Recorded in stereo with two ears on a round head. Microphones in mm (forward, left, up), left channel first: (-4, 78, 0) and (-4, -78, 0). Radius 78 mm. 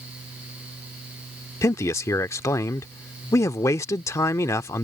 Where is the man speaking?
15° left (ahead or behind).